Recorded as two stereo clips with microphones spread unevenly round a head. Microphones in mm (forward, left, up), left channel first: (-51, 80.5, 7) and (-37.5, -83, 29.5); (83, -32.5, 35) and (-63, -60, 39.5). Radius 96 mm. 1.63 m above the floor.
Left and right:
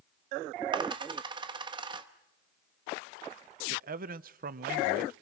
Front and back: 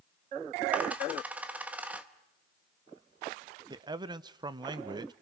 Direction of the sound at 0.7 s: 100° right.